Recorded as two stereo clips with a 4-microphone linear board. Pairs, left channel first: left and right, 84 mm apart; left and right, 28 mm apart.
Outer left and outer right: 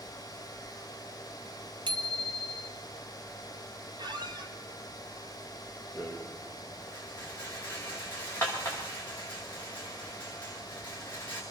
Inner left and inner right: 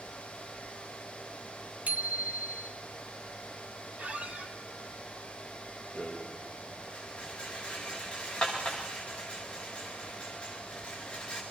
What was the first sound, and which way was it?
A bicycle bell, 70° right (ahead or behind).